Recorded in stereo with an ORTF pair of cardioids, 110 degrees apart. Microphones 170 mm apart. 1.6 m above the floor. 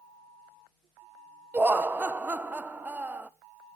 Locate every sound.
1.5 s laughter: 10° right, 1.0 m